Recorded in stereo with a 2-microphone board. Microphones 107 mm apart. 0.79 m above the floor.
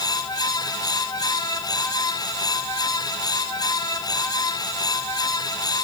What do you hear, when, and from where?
Only background noise.